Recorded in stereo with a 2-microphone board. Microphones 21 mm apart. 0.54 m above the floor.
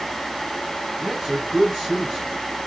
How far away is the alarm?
I don't hear an alarm.